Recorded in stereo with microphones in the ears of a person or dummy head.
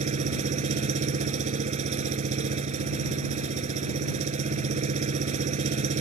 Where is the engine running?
40° right (ahead or behind).